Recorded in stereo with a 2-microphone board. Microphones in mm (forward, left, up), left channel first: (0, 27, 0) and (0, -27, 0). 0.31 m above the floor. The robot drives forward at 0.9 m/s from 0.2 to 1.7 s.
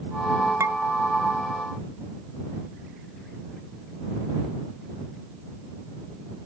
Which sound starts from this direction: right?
Dishes clattering, at 0.6 s.